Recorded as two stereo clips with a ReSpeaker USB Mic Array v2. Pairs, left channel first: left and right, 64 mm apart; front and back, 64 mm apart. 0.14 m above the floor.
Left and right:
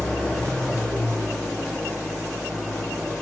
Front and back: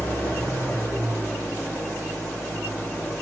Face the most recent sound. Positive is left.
turn(degrees=30)